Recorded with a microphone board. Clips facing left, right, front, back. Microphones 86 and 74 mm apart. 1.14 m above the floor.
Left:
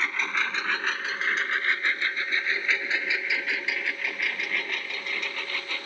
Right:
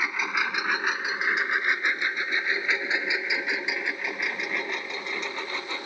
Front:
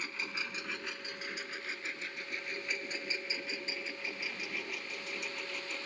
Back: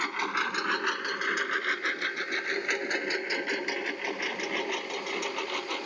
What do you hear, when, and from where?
0.0 s a lawn mower: 170° right; by 5.9 s 160° right